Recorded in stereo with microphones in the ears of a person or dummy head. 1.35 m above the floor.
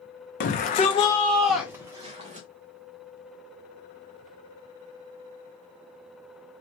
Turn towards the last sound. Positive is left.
turn(degrees=-25)  # may be behind; listen again after turning